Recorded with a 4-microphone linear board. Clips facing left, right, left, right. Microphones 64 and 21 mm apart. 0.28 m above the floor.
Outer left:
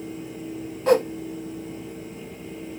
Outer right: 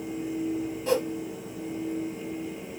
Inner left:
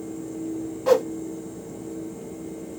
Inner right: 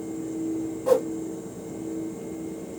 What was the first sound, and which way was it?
A whoosh, 50° left (ahead or behind).